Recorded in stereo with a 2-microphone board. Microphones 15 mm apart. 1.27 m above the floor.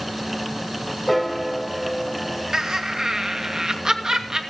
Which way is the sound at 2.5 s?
55° right (ahead or behind).